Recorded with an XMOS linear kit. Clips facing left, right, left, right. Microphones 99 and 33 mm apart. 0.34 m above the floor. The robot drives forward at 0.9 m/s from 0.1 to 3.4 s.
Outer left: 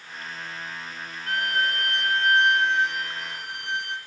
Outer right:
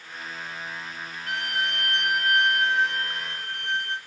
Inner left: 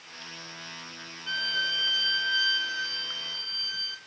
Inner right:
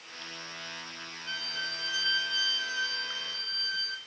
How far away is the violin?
About 0.8 m.